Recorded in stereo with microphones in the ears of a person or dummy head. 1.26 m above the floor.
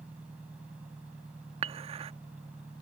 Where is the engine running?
10° right (ahead or behind).